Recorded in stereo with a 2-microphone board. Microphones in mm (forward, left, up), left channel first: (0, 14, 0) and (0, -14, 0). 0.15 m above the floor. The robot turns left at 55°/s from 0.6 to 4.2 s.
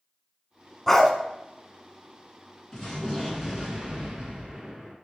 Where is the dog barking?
10° left (ahead or behind), 0.6 m; by 1.1 s 5° left (ahead or behind), 0.6 m.